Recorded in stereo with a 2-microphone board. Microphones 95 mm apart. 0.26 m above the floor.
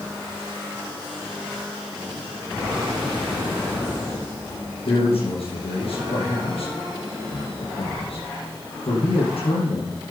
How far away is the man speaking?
About 7.5 m.